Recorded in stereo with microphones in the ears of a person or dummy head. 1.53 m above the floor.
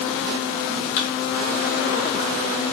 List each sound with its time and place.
1.0 s a thud: 40° left (ahead or behind), 1.1 m